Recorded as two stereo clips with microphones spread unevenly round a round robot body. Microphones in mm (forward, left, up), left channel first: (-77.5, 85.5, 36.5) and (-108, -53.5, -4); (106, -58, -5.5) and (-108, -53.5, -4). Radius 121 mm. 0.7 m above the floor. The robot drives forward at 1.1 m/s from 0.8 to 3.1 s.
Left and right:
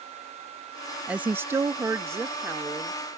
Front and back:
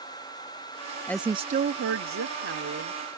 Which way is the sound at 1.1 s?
65° right.